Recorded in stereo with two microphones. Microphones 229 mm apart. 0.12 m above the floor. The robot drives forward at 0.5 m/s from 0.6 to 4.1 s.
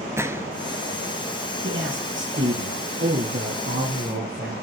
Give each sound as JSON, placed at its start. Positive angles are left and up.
{"t": 0.2, "sound": "a gunshot", "side_deg": -10, "distance_m": 0.6}
{"t": 1.6, "sound": "a man speaking", "side_deg": -60, "distance_m": 3.5}